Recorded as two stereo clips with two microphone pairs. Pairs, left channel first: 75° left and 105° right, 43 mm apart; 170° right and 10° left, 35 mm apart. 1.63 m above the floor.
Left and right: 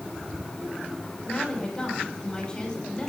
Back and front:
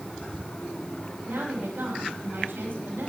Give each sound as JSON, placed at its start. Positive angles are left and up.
{"t": 1.2, "sound": "a woman speaking", "azimuth_deg": 5, "distance_m": 6.0}